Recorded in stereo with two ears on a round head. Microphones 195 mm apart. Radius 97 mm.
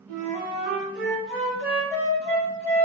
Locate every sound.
0.1 s a flute: 5° left (ahead or behind), 1.8 m